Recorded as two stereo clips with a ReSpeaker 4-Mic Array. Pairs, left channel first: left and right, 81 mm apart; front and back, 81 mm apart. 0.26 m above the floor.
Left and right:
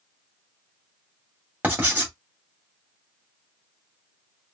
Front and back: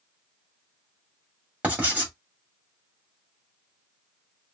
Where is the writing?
135° right, 1.8 m.